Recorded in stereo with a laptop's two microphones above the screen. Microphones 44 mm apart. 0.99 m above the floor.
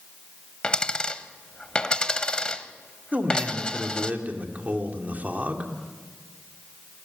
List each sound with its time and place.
0.6 s a dropped coin: 20° left (ahead or behind), 0.8 m
3.1 s a man speaking: 35° right (ahead or behind), 2.5 m